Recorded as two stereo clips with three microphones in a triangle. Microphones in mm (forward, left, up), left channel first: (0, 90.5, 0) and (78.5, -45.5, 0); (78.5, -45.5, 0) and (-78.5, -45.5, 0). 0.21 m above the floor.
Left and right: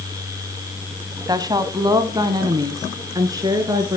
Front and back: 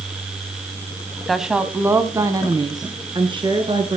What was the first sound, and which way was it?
A woman speaking, 90° right.